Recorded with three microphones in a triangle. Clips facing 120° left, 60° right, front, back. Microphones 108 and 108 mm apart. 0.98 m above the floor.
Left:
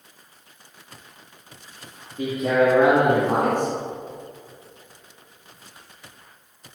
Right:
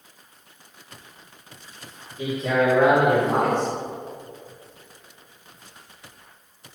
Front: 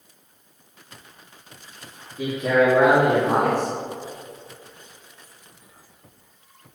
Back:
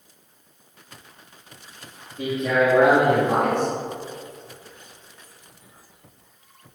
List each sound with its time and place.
2.2 s a man speaking: 80° left, 2 m